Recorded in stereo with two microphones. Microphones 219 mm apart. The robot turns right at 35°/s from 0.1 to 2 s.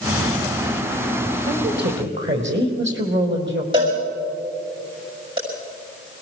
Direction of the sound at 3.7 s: 25° right (ahead or behind).